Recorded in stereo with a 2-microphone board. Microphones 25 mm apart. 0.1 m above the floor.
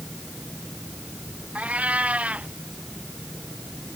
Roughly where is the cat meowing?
Right.